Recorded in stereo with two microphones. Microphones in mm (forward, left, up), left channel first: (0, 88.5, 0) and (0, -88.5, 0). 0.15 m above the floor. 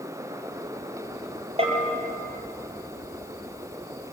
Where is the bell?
35° right (ahead or behind), 5 m.